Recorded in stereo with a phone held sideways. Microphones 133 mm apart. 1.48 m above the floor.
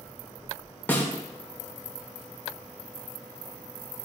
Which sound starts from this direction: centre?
A snare drum, at 0.9 s.